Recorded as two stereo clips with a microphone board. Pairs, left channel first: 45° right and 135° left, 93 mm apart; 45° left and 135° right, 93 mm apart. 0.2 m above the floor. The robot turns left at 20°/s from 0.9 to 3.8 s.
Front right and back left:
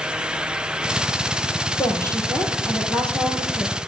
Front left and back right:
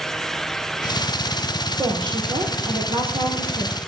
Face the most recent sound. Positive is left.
turn(degrees=-140)